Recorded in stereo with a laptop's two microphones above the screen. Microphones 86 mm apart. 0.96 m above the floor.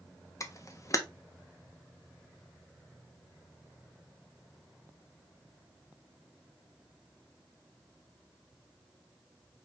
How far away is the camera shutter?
About 0.6 m.